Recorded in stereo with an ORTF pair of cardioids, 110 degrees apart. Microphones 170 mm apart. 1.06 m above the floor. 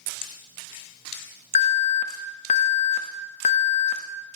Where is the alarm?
45° left, 1.1 m.